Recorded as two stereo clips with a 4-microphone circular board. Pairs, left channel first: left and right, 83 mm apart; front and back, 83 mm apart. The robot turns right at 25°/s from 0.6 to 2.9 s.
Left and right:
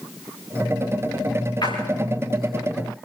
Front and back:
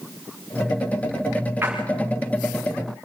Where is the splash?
115° left, 6.5 m; by 1.8 s 120° left, 6.5 m.